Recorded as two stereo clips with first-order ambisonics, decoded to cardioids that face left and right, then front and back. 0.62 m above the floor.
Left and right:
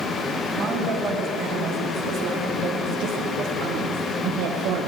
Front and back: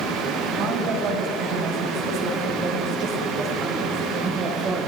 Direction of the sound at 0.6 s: 155° right.